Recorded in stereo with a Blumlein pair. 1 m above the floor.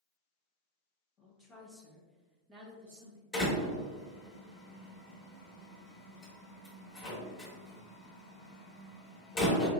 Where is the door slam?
30° left, 1.4 m.